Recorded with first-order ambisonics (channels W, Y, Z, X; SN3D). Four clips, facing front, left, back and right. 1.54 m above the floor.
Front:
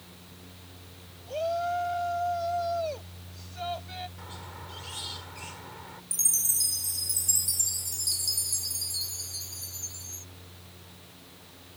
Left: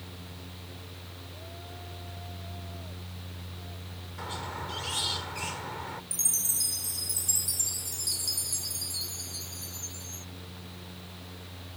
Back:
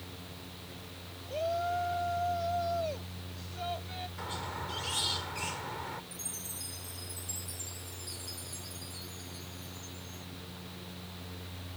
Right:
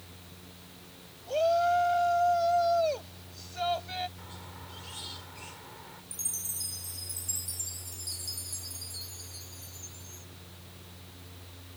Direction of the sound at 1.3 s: 80° right.